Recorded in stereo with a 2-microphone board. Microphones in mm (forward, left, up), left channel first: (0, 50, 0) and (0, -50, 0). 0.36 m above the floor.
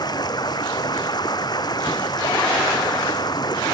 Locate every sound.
0.0 s running water: 45° left (ahead or behind)